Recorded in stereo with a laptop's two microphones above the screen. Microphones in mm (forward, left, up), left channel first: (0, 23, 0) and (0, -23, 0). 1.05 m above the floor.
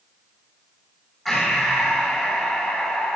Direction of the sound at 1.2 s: Centre (ahead or behind).